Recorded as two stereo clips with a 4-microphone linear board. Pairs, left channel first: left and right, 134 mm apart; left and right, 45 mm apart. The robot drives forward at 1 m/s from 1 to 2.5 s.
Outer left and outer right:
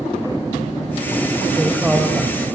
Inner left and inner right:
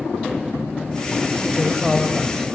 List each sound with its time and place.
1.6 s a woman speaking: 15° right (ahead or behind), 1.1 m; by 2.5 s 10° right (ahead or behind), 1.8 m